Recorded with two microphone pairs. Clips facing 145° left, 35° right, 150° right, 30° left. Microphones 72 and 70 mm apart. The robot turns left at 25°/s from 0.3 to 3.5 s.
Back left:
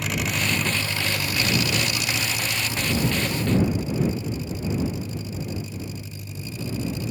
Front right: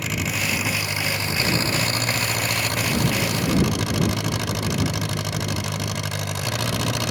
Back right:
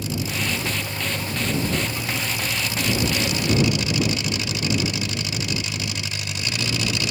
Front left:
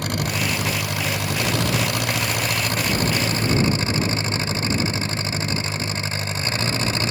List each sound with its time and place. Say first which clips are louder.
0.0 s an engine running: even, front left 2 dB; 55° left; by 7.1 s 25° right